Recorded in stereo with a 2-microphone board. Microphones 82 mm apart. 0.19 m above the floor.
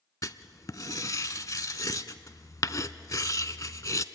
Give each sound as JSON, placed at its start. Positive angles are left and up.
{"t": 0.2, "sound": "writing", "side_deg": 45, "distance_m": 0.6}